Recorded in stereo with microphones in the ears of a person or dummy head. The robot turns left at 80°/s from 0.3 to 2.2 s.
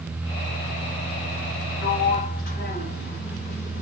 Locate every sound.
1.8 s a sliding door: 90° left, 2.5 m; by 3.8 s 60° left, 2.5 m